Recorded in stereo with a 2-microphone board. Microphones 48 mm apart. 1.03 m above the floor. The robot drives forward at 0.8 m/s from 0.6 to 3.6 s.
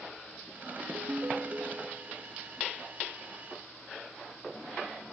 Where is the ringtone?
80° right, 0.8 m; by 2.3 s 30° right (ahead or behind), 1.7 m.